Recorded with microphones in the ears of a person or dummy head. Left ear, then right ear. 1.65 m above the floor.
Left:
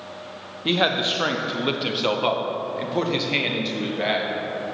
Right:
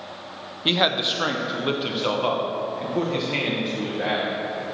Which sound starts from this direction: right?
A man speaking, at 0.7 s.